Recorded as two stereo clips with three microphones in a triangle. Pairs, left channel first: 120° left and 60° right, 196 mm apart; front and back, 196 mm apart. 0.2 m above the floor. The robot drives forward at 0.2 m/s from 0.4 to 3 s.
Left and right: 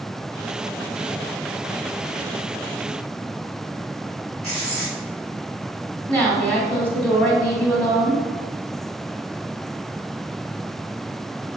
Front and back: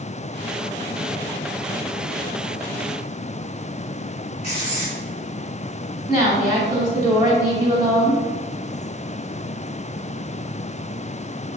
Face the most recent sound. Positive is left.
turn(degrees=-165)